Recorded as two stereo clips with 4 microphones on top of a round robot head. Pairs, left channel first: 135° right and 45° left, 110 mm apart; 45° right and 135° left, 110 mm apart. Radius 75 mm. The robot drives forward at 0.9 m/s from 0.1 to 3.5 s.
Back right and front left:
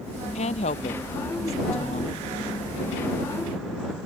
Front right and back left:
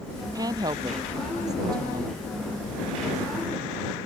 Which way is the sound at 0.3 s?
165° right.